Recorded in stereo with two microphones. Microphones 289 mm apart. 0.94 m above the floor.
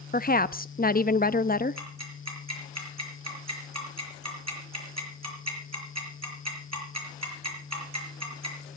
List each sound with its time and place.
0.1 s a woman speaking: 30° left (ahead or behind), 0.7 m
1.8 s ticking: 65° right (ahead or behind), 5 m